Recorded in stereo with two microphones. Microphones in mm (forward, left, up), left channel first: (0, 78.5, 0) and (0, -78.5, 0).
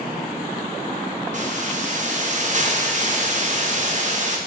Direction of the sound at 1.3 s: 50° right (ahead or behind).